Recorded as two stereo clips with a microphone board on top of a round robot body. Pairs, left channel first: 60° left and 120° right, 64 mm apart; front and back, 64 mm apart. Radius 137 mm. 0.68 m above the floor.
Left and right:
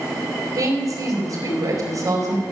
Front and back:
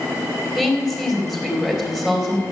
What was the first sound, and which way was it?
A woman speaking, 90° right.